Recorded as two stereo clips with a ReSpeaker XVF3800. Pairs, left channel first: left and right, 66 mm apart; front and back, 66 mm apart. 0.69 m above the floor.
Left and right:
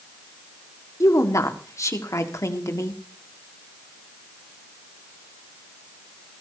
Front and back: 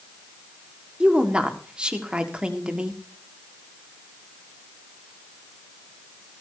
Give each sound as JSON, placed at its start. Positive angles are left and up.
{"t": 1.0, "sound": "a woman speaking", "azimuth_deg": 110, "distance_m": 1.6}